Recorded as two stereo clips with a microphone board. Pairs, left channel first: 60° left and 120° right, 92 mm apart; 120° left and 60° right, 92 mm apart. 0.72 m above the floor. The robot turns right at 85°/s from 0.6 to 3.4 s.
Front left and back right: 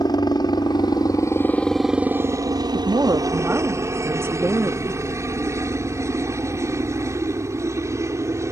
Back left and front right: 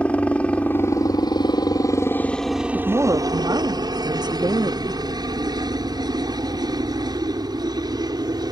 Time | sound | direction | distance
0.0 | a helicopter | 45° left | ?
2.7 | a woman speaking | 120° right | ?